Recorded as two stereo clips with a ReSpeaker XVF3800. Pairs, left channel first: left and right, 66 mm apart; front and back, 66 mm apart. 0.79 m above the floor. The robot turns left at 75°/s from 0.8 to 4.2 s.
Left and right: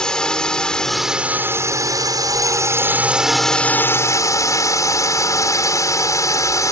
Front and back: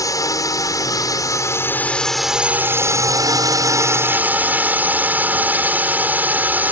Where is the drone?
15° left; by 6.7 s 120° left.